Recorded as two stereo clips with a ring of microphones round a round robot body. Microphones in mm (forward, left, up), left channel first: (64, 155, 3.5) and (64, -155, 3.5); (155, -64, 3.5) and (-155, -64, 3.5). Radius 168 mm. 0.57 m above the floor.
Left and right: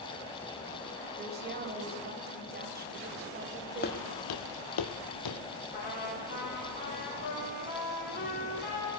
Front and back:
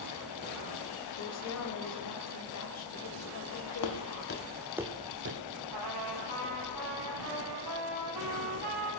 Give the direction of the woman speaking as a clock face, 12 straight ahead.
1 o'clock.